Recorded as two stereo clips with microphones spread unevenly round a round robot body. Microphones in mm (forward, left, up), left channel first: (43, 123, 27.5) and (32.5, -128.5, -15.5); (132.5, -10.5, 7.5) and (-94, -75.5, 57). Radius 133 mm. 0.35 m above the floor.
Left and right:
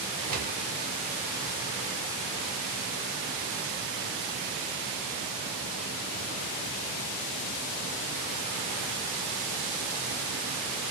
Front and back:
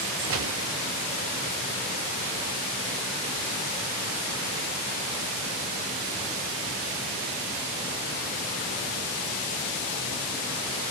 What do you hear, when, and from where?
0.3 s a gunshot: 135° right, 0.6 m